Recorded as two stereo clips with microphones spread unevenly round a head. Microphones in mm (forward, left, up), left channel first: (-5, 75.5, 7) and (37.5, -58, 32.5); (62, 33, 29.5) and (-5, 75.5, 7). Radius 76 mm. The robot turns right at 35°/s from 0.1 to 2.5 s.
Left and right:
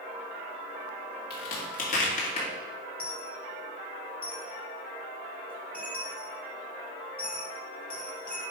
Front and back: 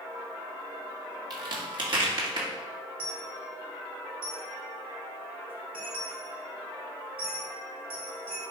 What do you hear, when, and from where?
1.3 s a crack: 120° left, 2 m; by 2.5 s 160° left, 2 m
3.0 s a dropped coin: 165° right, 2.5 m